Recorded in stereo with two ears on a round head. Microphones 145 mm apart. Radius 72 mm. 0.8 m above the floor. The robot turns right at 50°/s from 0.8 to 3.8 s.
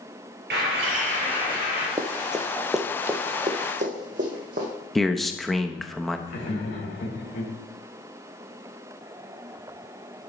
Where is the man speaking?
Centre (ahead or behind), 0.6 m.